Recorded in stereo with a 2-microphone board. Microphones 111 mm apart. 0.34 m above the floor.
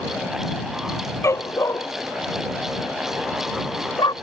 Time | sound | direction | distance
1.2 | a dog barking | 25° left (ahead or behind) | ?